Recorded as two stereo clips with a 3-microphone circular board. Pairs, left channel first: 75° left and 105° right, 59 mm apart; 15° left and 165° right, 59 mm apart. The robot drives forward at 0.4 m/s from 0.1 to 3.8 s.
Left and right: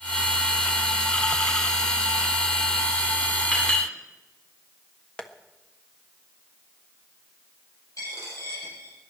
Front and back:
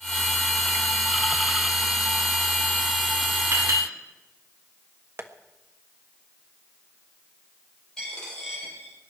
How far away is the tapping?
About 1.3 m.